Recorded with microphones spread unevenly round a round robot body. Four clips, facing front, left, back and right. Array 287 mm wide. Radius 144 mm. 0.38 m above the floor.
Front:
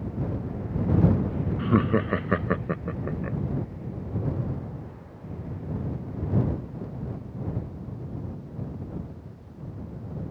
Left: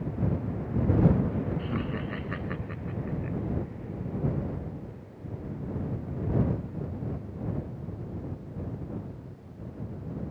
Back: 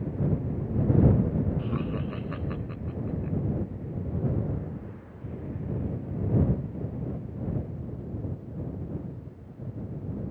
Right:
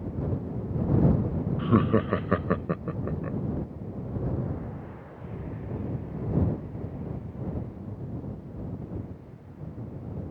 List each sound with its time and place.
1.6 s laughter: 45° right; by 3.4 s 40° right